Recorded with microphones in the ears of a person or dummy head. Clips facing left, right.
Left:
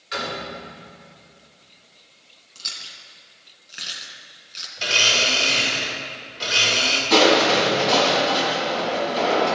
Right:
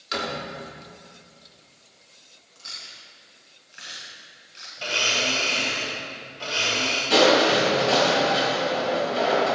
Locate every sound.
0.1 s a door slam: 60° right (ahead or behind), 3 m
2.5 s chewing: 45° left (ahead or behind), 2 m
4.8 s a blender: 25° left (ahead or behind), 3 m
7.1 s crushing: 15° right (ahead or behind), 4 m